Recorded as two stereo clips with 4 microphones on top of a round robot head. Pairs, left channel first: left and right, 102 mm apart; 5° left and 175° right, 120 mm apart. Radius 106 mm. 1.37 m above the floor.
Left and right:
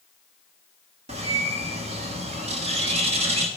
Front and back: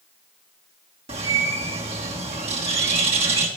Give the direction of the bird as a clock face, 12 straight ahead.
4 o'clock.